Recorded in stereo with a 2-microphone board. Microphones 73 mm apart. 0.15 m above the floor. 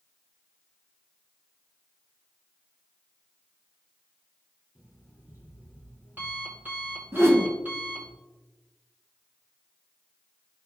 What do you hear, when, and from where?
4.8 s an alarm clock: 25° right (ahead or behind), 2.5 m
7.1 s a whoosh: 35° right (ahead or behind), 1.1 m